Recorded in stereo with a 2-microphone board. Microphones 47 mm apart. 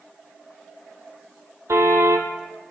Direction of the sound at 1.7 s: 80° right.